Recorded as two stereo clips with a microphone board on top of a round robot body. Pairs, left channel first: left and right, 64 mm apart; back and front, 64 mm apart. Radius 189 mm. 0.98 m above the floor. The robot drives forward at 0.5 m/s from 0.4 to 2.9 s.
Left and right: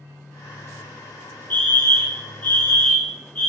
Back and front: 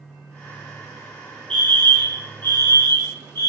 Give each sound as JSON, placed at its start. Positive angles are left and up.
{"t": 1.5, "sound": "a fire alarm", "azimuth_deg": 120, "distance_m": 1.7}